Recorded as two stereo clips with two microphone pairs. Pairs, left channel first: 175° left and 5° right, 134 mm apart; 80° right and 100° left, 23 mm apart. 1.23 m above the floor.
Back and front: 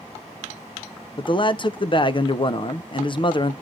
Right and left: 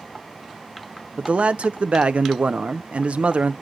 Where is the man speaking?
125° left, 0.6 m.